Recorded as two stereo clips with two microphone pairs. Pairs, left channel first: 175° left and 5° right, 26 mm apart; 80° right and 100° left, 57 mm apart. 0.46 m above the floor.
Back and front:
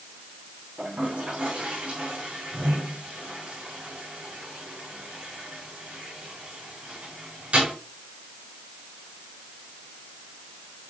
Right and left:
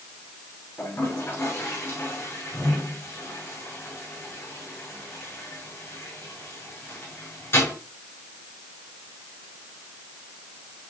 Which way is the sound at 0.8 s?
40° right.